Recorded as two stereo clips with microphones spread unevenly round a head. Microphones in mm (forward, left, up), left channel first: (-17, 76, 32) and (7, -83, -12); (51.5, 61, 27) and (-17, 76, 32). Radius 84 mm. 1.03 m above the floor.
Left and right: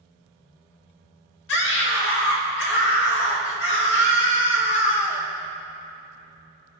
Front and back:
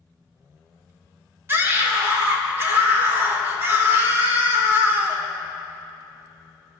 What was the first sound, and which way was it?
A scream, 110° left.